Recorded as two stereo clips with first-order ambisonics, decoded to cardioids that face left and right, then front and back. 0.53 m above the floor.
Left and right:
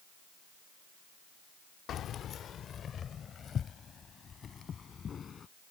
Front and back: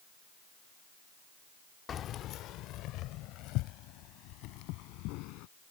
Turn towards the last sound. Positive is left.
turn(degrees=25)